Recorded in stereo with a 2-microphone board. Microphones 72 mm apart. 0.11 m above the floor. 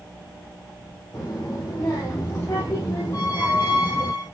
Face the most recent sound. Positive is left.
turn(degrees=65)  # may be behind; listen again after turning